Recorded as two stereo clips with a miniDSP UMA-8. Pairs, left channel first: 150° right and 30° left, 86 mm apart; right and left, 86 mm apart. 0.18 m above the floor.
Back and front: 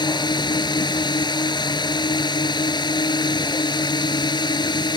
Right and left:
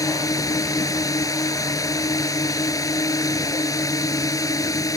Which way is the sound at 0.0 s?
130° right.